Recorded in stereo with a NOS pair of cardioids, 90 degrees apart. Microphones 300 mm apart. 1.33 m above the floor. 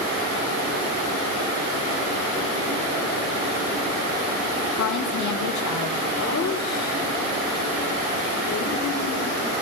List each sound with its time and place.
4.8 s a woman speaking: 65° left, 2.0 m
6.2 s laughter: 55° left, 4.5 m